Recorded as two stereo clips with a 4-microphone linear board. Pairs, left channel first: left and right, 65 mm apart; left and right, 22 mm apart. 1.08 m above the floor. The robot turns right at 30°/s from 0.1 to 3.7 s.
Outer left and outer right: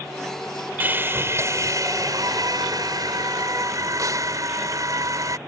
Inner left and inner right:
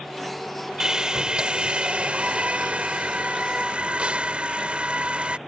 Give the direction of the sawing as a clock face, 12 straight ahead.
5 o'clock.